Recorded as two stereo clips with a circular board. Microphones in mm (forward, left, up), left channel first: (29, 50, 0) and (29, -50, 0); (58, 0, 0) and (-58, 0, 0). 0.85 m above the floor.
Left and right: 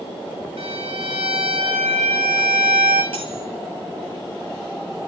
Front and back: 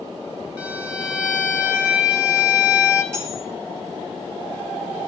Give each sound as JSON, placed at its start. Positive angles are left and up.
{"t": 0.6, "sound": "a violin", "azimuth_deg": -100, "distance_m": 7.0}
{"t": 3.1, "sound": "cutlery clinking", "azimuth_deg": -110, "distance_m": 9.5}